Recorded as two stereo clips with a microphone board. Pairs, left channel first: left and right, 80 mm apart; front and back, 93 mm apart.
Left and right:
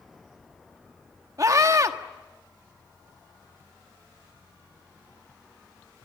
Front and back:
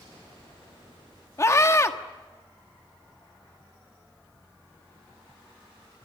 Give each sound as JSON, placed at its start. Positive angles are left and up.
{"t": 1.4, "sound": "a scream", "azimuth_deg": -50, "distance_m": 1.6}